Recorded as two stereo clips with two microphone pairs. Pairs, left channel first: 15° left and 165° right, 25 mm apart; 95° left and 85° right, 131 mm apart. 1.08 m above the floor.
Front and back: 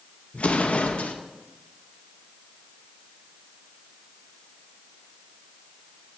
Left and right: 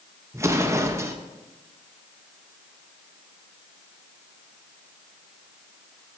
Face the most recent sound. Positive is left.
turn(degrees=-10)